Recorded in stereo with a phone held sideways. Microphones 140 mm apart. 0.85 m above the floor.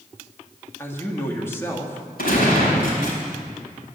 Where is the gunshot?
85° left, 4.5 m.